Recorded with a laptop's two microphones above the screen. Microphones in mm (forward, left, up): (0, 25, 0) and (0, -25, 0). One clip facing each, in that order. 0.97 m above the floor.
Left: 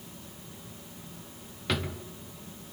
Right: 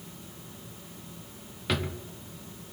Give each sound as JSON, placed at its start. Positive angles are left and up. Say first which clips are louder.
{"t": 1.7, "sound": "a drawer", "louder": "right 1 dB", "side_deg": 0, "distance_m": 0.7}